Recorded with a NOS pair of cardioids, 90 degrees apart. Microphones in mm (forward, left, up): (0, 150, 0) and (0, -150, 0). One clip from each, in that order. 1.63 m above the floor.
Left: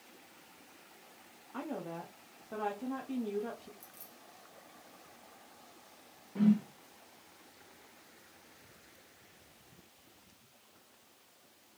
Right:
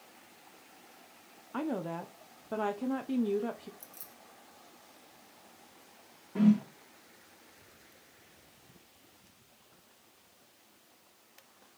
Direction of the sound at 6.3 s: 35° right.